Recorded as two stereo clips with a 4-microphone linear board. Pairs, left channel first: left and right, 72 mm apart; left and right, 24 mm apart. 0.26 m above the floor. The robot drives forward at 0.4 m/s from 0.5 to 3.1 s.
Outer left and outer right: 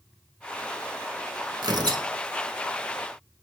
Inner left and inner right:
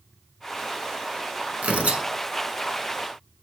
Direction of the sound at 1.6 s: 70° right (ahead or behind).